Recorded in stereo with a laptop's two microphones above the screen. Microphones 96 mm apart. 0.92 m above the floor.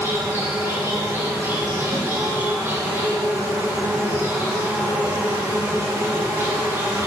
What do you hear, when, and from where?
0.0 s an insect: 30° right (ahead or behind), 3 m
1.9 s a snare drum: 75° right (ahead or behind), 2.5 m